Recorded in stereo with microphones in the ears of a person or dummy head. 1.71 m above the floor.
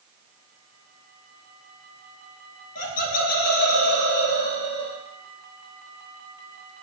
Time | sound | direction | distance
2.8 | laughter | 50° left (ahead or behind) | 2 m